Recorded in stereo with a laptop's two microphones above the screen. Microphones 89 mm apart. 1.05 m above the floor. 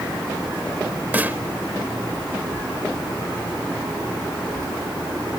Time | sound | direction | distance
1.1 | a snare drum | 20° right (ahead or behind) | ?